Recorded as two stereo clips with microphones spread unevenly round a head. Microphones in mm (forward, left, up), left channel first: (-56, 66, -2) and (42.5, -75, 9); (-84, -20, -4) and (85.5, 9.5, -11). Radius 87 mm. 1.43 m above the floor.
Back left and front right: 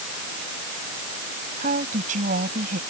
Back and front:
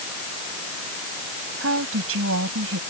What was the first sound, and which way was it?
A woman speaking, 5° right.